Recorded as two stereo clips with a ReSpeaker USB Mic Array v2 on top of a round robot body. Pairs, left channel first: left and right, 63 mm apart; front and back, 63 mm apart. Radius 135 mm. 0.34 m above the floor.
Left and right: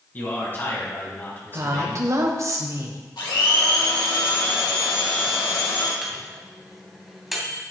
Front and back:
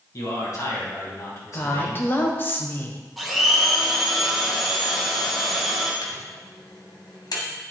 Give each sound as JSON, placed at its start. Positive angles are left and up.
{"t": 0.1, "sound": "a man speaking", "azimuth_deg": 35, "distance_m": 4.0}
{"t": 1.5, "sound": "a woman speaking", "azimuth_deg": -55, "distance_m": 1.9}
{"t": 3.2, "sound": "a blender", "azimuth_deg": 90, "distance_m": 2.5}
{"t": 6.0, "sound": "a microwave", "azimuth_deg": -5, "distance_m": 2.5}